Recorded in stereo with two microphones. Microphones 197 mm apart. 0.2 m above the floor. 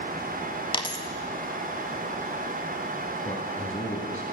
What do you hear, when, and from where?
0.7 s a dropped coin: 25° left (ahead or behind), 0.7 m
3.2 s a man speaking: 40° left (ahead or behind), 1.4 m